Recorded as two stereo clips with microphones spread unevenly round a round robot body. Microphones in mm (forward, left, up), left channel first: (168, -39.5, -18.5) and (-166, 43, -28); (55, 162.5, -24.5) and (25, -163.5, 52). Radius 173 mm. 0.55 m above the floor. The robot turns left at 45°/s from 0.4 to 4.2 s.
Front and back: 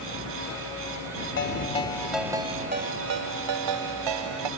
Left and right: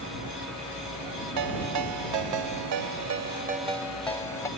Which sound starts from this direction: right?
A ringtone, at 1.4 s.